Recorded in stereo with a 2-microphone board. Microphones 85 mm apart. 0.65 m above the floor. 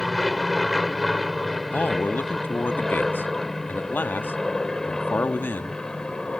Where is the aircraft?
Centre (ahead or behind); by 6.4 s 10° left (ahead or behind).